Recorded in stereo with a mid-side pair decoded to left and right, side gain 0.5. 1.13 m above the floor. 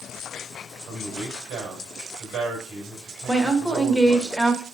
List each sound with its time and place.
0.9 s a man speaking: 70° right, 3 m
3.3 s a woman speaking: 5° right, 1.5 m